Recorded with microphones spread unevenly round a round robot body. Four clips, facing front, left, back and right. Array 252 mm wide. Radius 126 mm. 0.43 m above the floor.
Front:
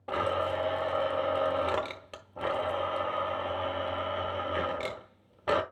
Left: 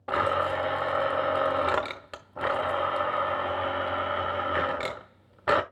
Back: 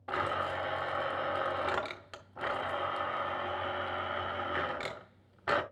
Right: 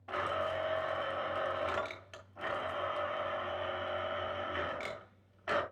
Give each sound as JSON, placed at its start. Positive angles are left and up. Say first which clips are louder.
{"t": 0.1, "sound": "a blender", "louder": "left 9 dB, front 4 dB", "azimuth_deg": 75, "distance_m": 1.1}